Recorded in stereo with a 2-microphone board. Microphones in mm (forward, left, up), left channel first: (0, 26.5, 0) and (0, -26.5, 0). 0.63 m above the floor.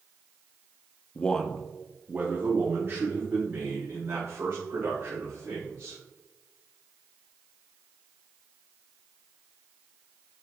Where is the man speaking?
20° left (ahead or behind), 0.7 m; by 6.0 s 55° right (ahead or behind), 3.5 m.